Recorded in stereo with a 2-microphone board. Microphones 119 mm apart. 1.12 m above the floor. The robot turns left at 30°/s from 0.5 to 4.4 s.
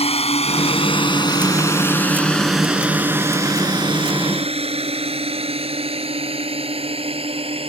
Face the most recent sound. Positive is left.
turn(degrees=-50)  # may be behind; listen again after turning